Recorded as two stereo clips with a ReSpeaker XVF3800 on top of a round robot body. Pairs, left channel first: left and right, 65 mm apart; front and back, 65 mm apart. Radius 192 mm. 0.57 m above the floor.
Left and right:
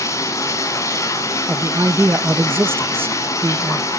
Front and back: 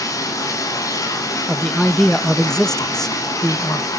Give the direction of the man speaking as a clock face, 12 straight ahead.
3 o'clock.